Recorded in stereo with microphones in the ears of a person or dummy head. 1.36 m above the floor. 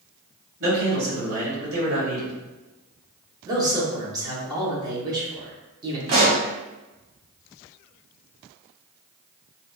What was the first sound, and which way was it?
A man speaking, 50° right (ahead or behind).